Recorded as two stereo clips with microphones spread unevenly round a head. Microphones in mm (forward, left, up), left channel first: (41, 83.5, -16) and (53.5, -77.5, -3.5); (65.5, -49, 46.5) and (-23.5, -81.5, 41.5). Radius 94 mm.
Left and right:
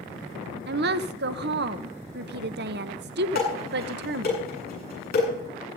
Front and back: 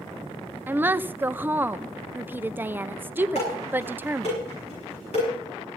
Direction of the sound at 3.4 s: 65° left.